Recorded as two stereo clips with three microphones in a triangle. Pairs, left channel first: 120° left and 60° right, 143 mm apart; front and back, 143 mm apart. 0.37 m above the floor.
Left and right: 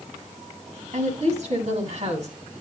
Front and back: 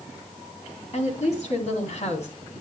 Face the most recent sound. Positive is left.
turn(degrees=-30)